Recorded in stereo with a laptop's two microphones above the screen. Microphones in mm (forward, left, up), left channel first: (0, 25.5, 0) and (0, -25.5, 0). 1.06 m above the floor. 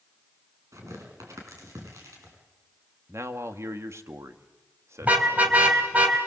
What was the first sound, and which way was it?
Tearing paper, 85° right.